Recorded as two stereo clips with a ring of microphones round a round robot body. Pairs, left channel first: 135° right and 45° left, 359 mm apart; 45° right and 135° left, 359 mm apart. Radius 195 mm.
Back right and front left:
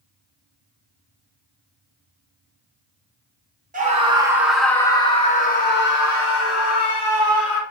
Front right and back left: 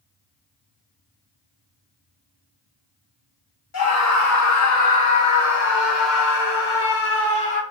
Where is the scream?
15° right, 1.2 m; by 7.6 s 100° right, 2.0 m.